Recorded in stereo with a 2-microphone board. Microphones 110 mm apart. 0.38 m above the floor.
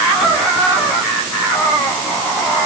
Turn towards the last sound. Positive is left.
No sound to turn to.